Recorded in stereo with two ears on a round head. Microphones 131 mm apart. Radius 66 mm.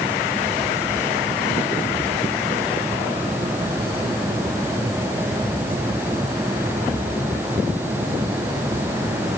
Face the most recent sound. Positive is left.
No sound to turn to.